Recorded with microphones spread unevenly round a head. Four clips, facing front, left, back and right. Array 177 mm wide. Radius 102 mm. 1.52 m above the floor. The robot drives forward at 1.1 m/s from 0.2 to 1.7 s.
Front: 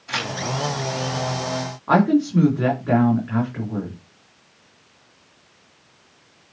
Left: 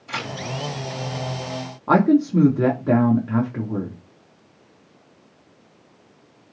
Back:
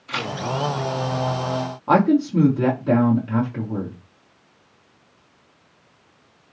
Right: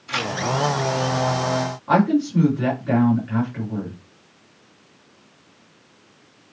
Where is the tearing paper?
65° left, 2.5 m; by 0.3 s 70° left, 2.5 m.